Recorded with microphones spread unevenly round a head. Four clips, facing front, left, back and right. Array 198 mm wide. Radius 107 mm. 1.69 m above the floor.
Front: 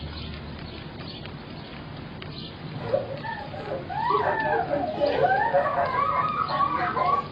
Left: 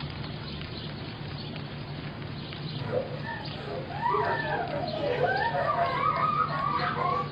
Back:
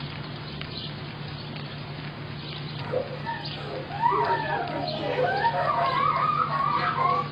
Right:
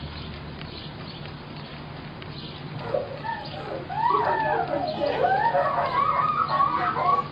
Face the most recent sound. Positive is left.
turn(degrees=-20)